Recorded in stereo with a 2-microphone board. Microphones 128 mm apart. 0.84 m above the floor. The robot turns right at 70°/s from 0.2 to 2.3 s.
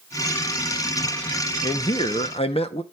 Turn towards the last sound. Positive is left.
turn(degrees=80)